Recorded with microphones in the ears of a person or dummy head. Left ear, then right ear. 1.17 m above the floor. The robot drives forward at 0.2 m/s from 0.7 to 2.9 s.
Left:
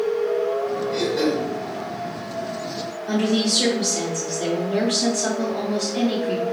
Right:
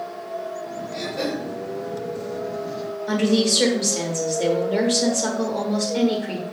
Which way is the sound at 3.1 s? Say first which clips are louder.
Right 1 dB; 20° right (ahead or behind).